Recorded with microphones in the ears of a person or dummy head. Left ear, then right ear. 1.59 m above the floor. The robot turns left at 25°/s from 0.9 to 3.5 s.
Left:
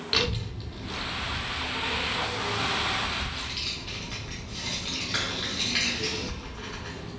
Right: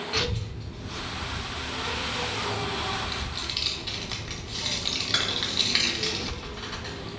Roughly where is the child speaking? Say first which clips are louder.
Left 4 dB; left.